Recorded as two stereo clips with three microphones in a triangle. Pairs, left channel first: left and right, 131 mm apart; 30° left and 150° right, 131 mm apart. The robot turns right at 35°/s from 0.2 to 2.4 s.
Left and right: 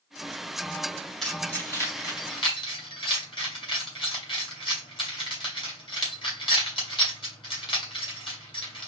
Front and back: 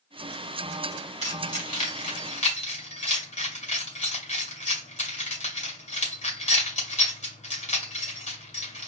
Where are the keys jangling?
5° left, 2.0 m; by 8.9 s 45° left, 2.0 m.